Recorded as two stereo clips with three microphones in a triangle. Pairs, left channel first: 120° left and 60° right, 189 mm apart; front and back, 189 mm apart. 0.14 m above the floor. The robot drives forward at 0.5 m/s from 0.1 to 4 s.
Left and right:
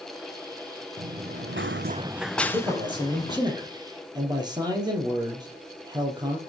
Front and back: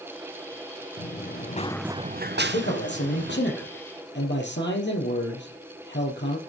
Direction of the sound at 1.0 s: 20° right.